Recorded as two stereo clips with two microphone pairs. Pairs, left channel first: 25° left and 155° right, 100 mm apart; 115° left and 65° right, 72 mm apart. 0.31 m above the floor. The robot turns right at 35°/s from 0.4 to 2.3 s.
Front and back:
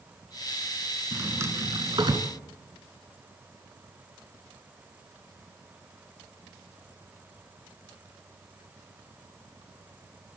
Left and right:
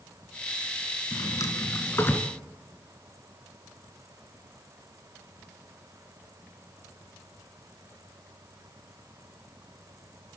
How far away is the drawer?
About 2.5 m.